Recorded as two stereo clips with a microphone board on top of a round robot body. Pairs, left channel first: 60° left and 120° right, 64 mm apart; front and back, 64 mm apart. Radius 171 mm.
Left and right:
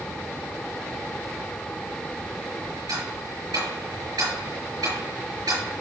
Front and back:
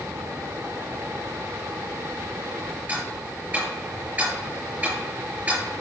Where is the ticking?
120° right, 5.5 m.